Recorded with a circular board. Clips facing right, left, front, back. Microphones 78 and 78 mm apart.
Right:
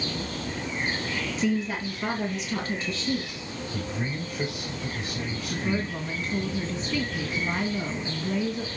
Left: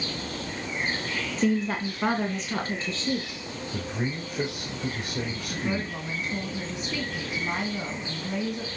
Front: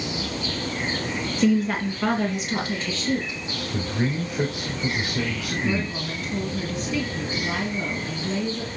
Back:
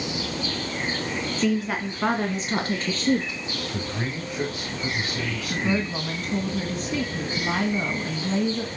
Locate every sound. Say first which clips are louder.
1.4 s a woman speaking: left 3 dB, front 4 dB; 80° left, 1.6 m; by 3.4 s 150° left, 3.5 m
3.7 s a man speaking: left 1 dB, front 7 dB; 75° left, 5.5 m
5.5 s a woman speaking: right 2 dB, back 3 dB; 165° left, 2 m